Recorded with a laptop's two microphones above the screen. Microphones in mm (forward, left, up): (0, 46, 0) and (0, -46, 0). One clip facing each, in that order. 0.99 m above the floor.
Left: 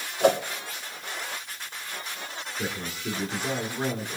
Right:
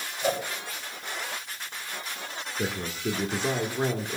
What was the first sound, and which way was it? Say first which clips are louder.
A whoosh: left 7 dB; 70° left (ahead or behind).